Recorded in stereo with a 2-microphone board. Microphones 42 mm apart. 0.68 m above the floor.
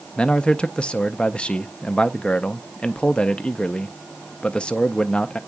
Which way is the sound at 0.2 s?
25° left (ahead or behind).